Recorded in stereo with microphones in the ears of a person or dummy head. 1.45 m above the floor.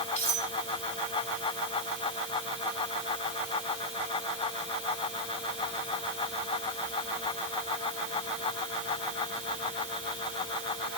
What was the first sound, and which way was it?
Cutlery clinking, 45° left (ahead or behind).